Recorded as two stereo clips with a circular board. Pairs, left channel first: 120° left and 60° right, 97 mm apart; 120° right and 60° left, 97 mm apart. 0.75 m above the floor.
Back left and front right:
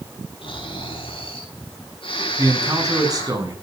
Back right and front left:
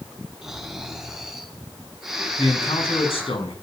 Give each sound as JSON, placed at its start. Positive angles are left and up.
{"t": 0.4, "sound": "snoring", "azimuth_deg": 145, "distance_m": 5.5}
{"t": 2.4, "sound": "a man speaking", "azimuth_deg": -110, "distance_m": 6.0}